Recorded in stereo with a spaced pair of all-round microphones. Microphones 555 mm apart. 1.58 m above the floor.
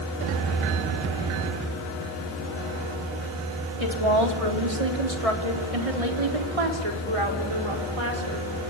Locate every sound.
3.8 s a woman speaking: 55° right (ahead or behind), 4 m